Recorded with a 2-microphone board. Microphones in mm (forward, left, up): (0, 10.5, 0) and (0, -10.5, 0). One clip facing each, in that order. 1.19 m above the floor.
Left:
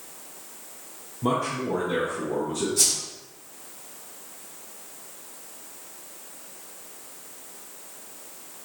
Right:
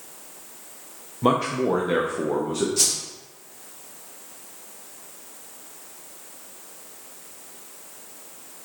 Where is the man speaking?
40° right (ahead or behind), 0.6 m; by 2.7 s 70° right (ahead or behind), 1.0 m.